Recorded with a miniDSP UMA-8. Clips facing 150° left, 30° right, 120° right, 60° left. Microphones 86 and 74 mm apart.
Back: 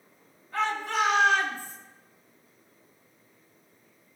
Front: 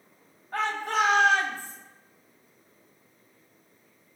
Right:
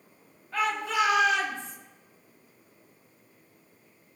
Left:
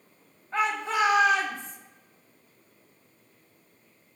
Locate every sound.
0.5 s a shout: straight ahead, 3 m; by 1.8 s 20° left, 3 m